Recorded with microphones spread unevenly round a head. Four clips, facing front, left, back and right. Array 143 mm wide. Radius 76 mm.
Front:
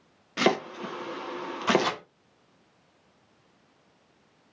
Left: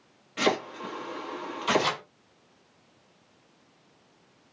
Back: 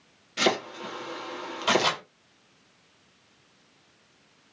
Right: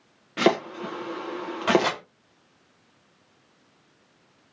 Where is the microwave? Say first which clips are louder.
Right 4 dB, even; 100° right, 2.5 m.